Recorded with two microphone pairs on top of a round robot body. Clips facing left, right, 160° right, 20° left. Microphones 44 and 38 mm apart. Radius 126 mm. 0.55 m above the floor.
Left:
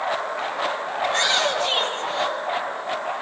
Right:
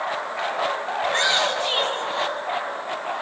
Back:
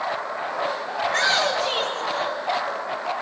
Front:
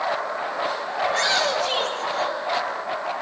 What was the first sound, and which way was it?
A shout, 155° right.